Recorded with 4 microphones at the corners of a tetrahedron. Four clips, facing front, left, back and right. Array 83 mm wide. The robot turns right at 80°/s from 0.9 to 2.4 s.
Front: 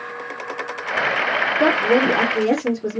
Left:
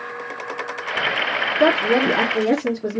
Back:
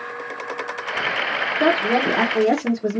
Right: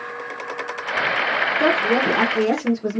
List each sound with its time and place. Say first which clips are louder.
1.6 s a woman speaking: left 3 dB, front 1 dB; 90° left, 1.2 m; by 3.0 s 155° left, 1.2 m